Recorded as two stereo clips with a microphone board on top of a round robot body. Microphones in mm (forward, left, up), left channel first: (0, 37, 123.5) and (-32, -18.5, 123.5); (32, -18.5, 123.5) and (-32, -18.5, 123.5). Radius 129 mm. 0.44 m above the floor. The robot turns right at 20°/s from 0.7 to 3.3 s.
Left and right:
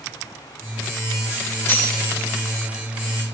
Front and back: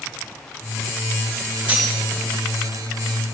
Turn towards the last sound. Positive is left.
turn(degrees=140)